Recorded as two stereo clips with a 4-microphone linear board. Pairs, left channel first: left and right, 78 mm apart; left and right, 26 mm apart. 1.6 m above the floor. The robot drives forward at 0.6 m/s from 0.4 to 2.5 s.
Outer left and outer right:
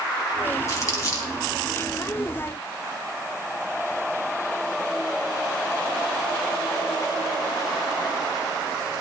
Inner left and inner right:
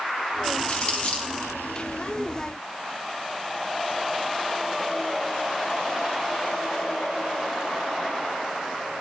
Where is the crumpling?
40° left (ahead or behind), 4 m; by 1.3 s 45° left (ahead or behind), 3.5 m.